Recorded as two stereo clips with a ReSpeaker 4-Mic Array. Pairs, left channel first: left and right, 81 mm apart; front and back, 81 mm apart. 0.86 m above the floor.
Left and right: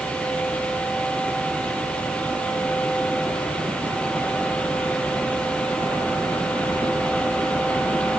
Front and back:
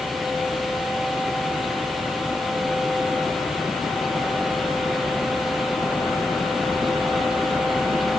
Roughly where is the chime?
No chime in this recording.